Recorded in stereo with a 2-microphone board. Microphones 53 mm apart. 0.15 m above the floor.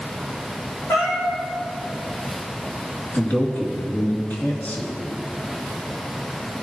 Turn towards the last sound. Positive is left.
turn(degrees=35)  # may be behind; listen again after turning